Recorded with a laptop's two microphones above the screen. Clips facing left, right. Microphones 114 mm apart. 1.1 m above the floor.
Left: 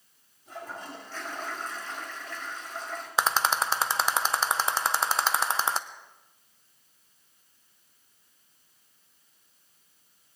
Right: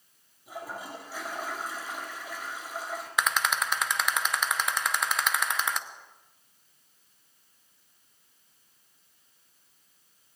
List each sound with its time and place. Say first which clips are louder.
0.5 s a toilet flushing: right 1 dB; 10° right (ahead or behind), 3 m
3.2 s a rattle: left 3 dB; 30° left (ahead or behind), 0.6 m